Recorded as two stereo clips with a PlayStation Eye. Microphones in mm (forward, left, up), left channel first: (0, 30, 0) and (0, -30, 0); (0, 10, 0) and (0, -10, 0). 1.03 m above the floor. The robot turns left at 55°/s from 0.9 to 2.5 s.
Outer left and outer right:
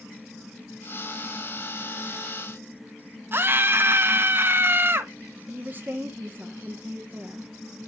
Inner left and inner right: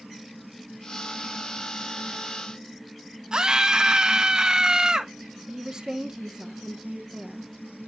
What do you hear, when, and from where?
3.3 s a scream: 35° right (ahead or behind), 0.6 m
5.5 s a woman speaking: 30° right (ahead or behind), 1.0 m